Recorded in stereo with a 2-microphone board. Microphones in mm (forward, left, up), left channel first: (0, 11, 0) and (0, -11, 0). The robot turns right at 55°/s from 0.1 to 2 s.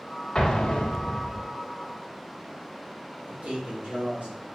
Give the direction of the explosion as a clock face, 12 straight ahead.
11 o'clock.